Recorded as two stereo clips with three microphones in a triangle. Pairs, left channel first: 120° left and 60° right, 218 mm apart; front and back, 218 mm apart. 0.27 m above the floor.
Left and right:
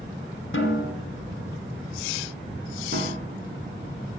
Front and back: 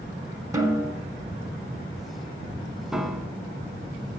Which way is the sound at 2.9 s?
90° right.